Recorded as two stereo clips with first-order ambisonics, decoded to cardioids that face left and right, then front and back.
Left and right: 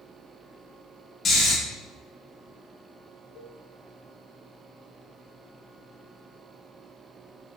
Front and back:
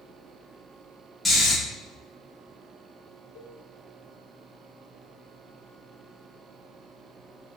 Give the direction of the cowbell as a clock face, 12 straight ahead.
11 o'clock.